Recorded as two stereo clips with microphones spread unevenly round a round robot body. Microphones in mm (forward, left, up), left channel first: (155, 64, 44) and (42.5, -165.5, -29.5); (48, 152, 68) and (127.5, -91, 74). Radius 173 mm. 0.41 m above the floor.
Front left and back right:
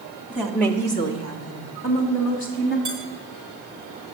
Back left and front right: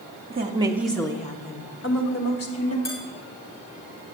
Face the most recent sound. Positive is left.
turn(degrees=170)